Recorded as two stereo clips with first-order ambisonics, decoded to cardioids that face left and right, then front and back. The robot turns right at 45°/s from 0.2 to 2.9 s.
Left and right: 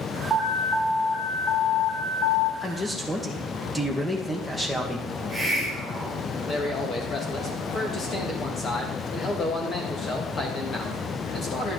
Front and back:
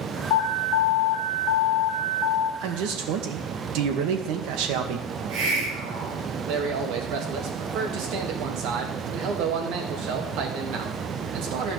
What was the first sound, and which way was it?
An alarm, 15° right.